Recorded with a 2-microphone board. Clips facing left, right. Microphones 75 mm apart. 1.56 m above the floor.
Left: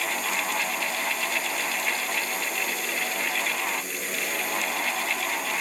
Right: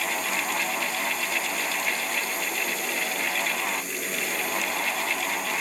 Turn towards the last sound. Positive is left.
No sound to turn to.